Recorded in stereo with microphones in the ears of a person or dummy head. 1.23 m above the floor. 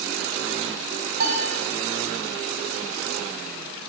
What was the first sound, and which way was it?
A piano, 60° right (ahead or behind).